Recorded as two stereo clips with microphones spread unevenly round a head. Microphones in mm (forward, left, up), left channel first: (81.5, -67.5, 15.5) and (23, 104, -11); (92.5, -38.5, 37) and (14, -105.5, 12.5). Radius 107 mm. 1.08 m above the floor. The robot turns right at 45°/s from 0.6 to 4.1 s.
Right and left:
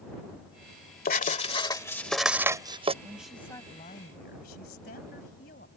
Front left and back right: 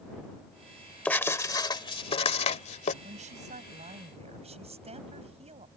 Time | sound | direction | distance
1.1 | writing | 35° right | ?
3.0 | a woman speaking | 170° right | ?